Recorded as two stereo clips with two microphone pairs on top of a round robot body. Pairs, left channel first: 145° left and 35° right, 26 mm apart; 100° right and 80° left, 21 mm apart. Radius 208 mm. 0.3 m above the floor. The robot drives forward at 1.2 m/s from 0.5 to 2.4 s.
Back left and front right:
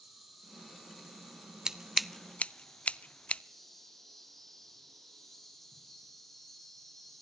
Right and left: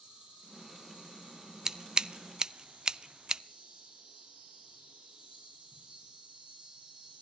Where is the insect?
45° left, 7.5 m; by 7.2 s 60° left, 6 m.